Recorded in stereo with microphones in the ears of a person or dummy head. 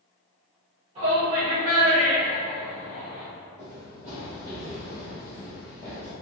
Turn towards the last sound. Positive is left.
turn(degrees=0)  # may be behind; listen again after turning